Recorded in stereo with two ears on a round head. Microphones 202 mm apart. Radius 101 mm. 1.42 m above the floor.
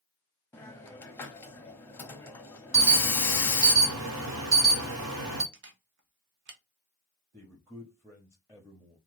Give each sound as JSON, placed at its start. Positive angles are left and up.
{"t": 0.5, "sound": "a hiss", "side_deg": 10, "distance_m": 0.6}
{"t": 2.7, "sound": "an alarm", "side_deg": -60, "distance_m": 1.1}
{"t": 5.5, "sound": "a camera shutter", "side_deg": -55, "distance_m": 0.7}
{"t": 7.3, "sound": "a man speaking", "side_deg": -5, "distance_m": 0.6}